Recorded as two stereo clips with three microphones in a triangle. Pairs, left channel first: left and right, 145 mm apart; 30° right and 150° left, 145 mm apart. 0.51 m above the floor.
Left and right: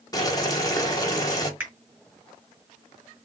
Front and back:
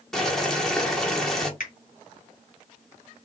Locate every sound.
0.1 s boiling: 55° left, 1.1 m
1.6 s a finger snap: 10° right, 1.9 m